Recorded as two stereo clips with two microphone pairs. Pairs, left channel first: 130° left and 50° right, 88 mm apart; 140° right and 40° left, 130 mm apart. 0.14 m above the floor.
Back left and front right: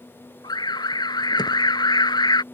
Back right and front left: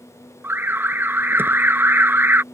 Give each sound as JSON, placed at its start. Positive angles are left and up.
{"t": 0.4, "sound": "an alarm", "azimuth_deg": 110}